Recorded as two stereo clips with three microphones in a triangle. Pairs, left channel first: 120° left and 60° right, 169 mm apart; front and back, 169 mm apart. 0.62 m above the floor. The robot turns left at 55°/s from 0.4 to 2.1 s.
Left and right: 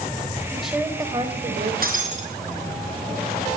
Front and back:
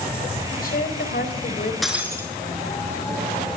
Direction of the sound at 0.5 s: 35° left.